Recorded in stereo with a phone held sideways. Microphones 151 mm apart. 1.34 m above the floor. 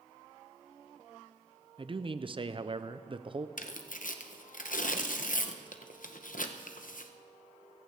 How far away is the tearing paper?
About 0.8 m.